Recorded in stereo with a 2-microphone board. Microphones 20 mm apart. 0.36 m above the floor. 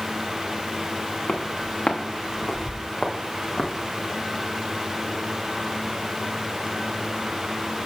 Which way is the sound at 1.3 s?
55° left (ahead or behind).